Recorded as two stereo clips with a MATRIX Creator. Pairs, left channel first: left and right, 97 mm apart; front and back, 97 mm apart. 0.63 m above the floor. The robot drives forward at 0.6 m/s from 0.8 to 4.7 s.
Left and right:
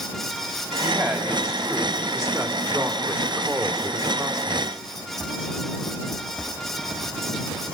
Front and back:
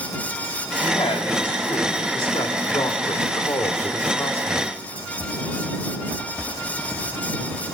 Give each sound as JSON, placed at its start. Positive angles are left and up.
{"t": 0.8, "sound": "a woman speaking", "azimuth_deg": -20, "distance_m": 3.0}